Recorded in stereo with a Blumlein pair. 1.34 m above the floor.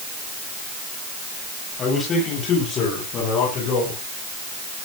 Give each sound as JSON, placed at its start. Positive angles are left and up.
{"t": 1.8, "sound": "a man speaking", "azimuth_deg": 20, "distance_m": 9.0}